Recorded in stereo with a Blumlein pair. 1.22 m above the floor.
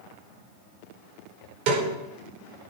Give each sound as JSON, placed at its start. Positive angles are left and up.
{"t": 1.7, "sound": "a snare drum", "azimuth_deg": -45, "distance_m": 5.0}